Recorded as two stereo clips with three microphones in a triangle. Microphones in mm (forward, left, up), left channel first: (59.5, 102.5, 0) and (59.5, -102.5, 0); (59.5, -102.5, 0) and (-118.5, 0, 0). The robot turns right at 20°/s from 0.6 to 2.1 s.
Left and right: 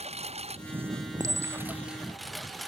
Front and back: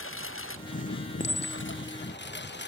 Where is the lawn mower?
30° right; by 2.7 s straight ahead.